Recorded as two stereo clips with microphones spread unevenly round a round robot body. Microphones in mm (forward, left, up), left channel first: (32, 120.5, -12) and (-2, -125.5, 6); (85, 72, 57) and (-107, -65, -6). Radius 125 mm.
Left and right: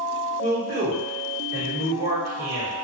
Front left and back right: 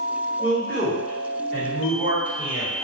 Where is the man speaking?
60° right, 1.4 m.